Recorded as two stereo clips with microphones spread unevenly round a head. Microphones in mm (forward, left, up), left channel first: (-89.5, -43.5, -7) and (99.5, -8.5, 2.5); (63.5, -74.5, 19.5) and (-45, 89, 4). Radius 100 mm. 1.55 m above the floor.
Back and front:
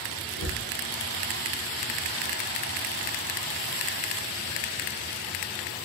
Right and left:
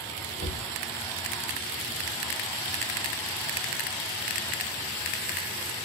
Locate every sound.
0.4 s a cupboard door: straight behind, 1.4 m